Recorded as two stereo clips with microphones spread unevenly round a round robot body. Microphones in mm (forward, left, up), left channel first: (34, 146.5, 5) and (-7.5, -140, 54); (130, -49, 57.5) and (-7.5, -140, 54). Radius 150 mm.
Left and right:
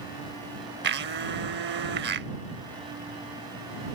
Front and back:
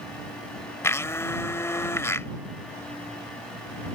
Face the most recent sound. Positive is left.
turn(degrees=-40)